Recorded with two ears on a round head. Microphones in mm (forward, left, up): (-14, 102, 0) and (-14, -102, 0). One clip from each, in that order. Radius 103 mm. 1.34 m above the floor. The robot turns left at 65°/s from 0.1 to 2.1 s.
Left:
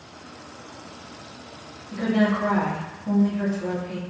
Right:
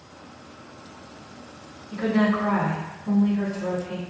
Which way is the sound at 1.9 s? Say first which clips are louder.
Even; 35° left (ahead or behind).